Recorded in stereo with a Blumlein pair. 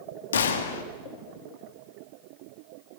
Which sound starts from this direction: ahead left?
A gunshot, at 0.3 s.